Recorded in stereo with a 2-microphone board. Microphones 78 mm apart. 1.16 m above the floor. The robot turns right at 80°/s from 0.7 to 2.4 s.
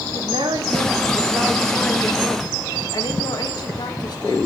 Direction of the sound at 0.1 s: 80° right.